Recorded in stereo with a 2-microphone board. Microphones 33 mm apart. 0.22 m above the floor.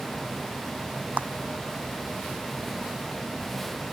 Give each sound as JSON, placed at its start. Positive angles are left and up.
{"t": 1.2, "sound": "a clap", "side_deg": -55}